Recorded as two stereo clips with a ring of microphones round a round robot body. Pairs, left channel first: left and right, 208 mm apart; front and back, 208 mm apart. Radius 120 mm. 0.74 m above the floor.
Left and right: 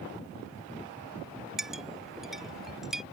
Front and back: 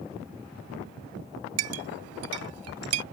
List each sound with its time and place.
1.6 s a clink: straight behind